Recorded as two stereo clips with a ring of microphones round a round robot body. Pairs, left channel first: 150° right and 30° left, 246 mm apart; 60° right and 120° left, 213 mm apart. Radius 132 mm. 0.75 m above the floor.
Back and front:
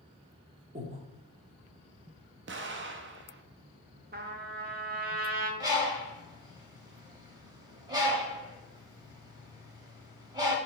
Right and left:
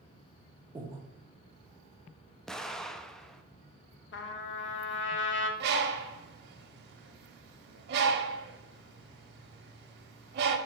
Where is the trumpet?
25° right, 0.8 m.